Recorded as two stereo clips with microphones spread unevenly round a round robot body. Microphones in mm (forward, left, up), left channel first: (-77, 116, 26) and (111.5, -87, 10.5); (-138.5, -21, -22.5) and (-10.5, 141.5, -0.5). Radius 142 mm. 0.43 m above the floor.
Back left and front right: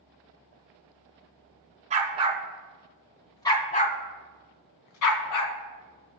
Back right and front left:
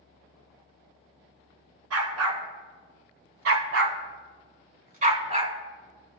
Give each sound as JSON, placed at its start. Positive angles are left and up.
{"t": 1.9, "sound": "a dog barking", "azimuth_deg": 20, "distance_m": 2.0}